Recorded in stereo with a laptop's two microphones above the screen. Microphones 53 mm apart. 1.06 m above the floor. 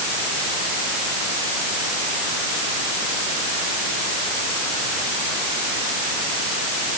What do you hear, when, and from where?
Only background noise.